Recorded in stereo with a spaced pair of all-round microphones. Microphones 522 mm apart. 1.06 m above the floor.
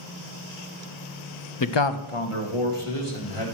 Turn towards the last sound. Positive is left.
turn(degrees=70)  # may be behind; listen again after turning